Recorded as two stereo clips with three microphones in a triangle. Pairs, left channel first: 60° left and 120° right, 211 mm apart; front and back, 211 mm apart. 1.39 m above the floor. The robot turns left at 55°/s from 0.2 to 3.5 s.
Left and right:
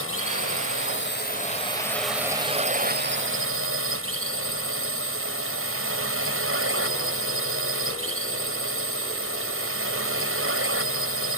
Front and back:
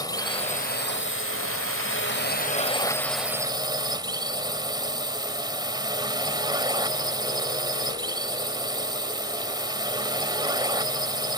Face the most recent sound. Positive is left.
turn(degrees=-110)